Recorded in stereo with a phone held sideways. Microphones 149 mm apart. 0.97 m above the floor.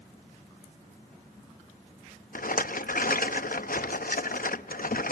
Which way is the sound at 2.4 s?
70° left (ahead or behind).